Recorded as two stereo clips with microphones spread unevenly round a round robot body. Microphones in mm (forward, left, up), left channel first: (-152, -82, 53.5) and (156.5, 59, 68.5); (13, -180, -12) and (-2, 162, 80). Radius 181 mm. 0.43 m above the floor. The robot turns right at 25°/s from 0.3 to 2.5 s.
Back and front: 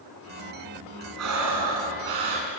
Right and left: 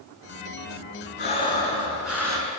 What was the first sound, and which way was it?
Breathing, 20° right.